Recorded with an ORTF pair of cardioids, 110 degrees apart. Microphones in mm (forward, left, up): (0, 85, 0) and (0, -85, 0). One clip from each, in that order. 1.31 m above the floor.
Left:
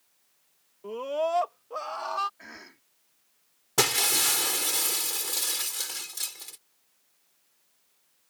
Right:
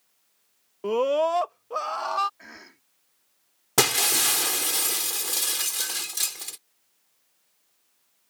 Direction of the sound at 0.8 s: 70° right.